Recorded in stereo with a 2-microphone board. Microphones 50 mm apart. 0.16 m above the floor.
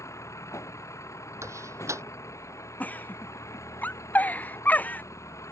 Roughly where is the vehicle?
Left.